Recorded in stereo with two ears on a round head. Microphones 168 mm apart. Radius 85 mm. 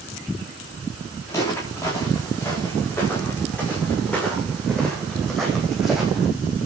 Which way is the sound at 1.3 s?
15° left (ahead or behind).